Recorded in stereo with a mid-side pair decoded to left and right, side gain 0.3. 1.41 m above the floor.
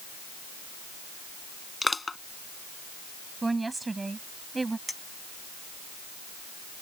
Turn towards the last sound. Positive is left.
turn(degrees=15)